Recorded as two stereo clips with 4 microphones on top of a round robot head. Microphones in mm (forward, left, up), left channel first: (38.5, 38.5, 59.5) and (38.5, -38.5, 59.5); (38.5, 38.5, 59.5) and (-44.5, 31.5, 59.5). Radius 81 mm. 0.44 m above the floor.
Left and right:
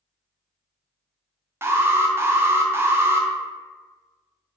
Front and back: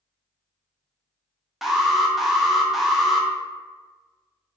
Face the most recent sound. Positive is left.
turn(degrees=-90)